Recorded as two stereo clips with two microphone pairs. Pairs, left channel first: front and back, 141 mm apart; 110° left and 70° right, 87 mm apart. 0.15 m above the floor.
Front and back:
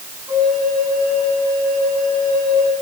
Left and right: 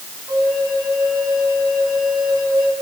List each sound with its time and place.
0.3 s a flute: 110° right, 2.5 m